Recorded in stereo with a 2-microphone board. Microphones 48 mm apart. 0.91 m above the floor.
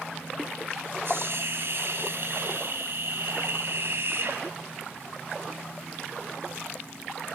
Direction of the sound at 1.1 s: 55° right (ahead or behind).